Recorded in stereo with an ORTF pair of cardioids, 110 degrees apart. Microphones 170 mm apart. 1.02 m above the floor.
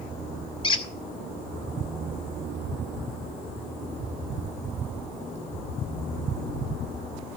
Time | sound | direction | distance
0.6 | a squeak | 30° left | 1.5 m